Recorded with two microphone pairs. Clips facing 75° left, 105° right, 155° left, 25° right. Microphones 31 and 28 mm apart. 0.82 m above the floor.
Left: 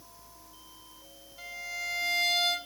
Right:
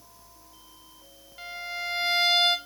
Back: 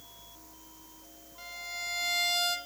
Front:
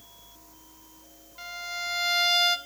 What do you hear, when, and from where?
1.4 s a violin: 60° right, 0.8 m